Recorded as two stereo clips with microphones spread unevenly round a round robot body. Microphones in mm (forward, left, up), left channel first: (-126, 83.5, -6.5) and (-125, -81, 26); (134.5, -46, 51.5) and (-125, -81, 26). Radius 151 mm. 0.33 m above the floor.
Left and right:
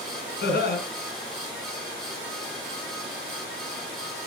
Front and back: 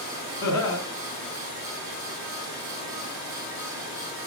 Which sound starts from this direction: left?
Laughter, at 0.4 s.